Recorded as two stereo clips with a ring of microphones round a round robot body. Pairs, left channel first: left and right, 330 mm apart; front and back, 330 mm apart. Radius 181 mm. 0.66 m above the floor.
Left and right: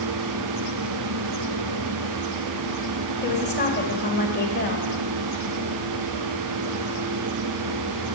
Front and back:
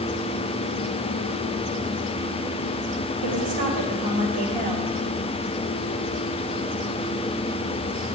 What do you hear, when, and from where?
3.2 s a woman speaking: 150° left, 3 m